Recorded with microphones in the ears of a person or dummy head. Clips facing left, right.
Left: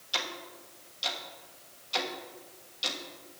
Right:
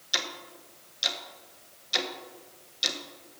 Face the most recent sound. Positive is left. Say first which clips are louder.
# even
turn(degrees=-20)  # may be behind; listen again after turning